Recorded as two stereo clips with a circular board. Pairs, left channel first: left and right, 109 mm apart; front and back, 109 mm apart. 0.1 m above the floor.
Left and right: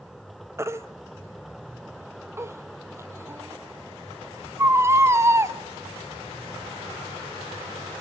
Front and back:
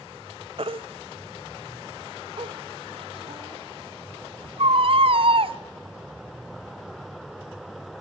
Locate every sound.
0.6 s a baby crying: 155° right, 1.1 m